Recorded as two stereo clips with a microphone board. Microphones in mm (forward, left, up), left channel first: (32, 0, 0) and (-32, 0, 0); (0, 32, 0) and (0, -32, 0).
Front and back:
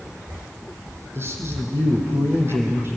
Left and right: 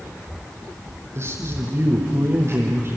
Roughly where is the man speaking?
Behind right.